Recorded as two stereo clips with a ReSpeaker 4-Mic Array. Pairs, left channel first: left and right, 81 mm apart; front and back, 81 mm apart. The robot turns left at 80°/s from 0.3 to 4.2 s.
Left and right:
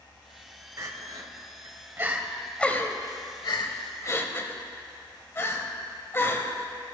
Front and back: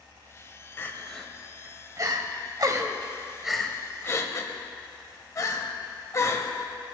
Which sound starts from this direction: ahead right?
Crying, at 0.8 s.